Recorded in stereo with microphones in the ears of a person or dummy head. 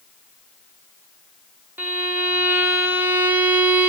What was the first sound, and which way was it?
A violin, 10° right (ahead or behind).